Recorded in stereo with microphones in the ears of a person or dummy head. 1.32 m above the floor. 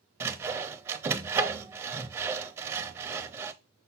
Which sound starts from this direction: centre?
Sawing, at 0.2 s.